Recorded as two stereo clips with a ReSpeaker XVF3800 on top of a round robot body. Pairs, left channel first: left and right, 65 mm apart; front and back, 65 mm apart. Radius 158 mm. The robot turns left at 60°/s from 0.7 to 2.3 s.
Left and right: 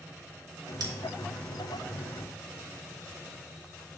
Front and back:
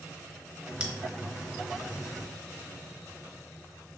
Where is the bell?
100° right, 1.0 m; by 0.9 s 110° right, 1.0 m.